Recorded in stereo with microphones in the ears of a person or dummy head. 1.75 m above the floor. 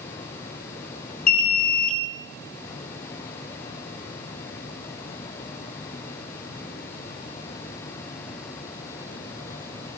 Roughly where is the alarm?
Left.